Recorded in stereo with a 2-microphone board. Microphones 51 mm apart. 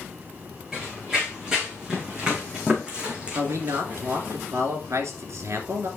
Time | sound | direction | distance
0.7 | running footsteps | 10° right (ahead or behind) | 5 m
3.4 | a man speaking | 70° right (ahead or behind) | 2.5 m